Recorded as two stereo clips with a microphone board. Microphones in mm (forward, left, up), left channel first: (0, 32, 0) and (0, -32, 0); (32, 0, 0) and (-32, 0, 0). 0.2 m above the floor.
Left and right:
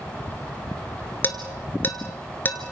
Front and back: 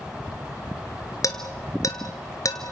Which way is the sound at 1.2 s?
30° left.